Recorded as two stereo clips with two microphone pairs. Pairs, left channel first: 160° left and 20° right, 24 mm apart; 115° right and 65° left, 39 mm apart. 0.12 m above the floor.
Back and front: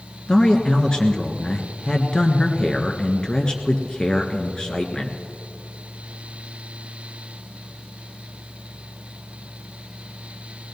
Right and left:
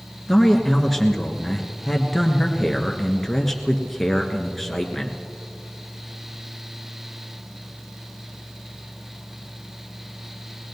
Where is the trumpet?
No trumpet in this recording.